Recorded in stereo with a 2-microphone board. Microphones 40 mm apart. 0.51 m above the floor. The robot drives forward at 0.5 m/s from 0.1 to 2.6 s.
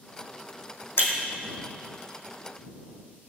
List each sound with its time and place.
1.0 s breaking glass: 65° left (ahead or behind), 2 m